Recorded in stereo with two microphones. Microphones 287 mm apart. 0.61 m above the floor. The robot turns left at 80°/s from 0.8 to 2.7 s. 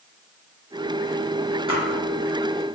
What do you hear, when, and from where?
1.7 s a splash: 15° right (ahead or behind), 0.9 m; by 1.8 s 25° right (ahead or behind), 0.9 m